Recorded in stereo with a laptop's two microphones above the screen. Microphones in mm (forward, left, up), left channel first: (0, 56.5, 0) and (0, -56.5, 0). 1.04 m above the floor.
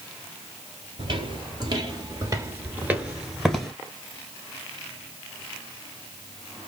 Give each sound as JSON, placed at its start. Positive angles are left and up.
{"t": 1.0, "sound": "footsteps", "side_deg": -45, "distance_m": 1.4}